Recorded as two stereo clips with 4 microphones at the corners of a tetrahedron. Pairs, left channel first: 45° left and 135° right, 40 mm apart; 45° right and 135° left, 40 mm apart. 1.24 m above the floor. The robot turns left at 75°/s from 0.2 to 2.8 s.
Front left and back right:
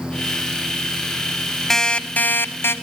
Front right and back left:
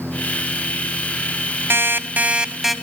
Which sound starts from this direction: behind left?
An alarm clock, at 1.7 s.